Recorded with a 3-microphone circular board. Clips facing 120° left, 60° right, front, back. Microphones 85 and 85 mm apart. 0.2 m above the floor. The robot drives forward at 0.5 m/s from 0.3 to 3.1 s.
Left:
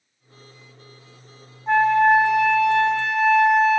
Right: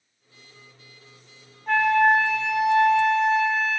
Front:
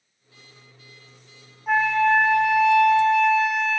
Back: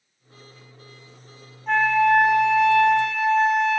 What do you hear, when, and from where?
1.7 s a flute: 75° left, 0.6 m; by 3.8 s 150° left, 0.9 m